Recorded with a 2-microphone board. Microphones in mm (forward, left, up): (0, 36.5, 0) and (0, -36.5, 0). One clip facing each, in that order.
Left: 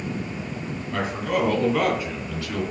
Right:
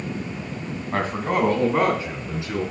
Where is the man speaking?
45° right (ahead or behind), 2.0 m; by 2.6 s 20° right (ahead or behind), 3 m.